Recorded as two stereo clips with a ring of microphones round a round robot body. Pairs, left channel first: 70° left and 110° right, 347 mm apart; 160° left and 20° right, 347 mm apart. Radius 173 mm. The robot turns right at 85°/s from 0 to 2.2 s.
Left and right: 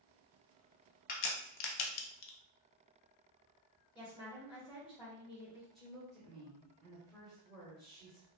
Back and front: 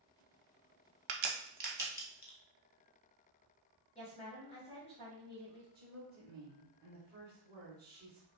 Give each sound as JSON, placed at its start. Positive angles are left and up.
{"t": 1.1, "sound": "a crack", "azimuth_deg": 0, "distance_m": 0.6}
{"t": 4.0, "sound": "a woman speaking", "azimuth_deg": 120, "distance_m": 1.3}
{"t": 5.8, "sound": "a woman speaking", "azimuth_deg": -20, "distance_m": 0.9}